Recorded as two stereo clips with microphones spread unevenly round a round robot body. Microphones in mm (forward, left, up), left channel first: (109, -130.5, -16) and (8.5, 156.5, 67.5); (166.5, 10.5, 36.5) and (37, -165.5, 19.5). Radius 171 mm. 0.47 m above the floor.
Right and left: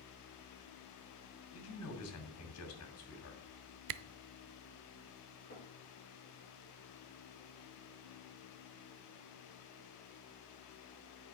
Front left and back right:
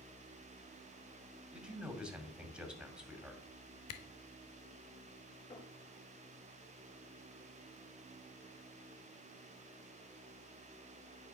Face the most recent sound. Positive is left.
turn(degrees=-5)